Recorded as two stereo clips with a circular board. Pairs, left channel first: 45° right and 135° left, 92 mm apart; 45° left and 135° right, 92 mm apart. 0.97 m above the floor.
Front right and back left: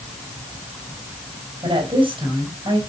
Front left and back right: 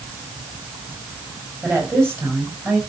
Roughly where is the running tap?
No running tap in this recording.